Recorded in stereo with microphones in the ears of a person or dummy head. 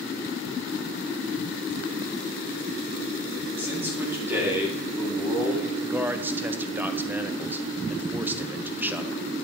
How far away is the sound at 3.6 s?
About 2.5 m.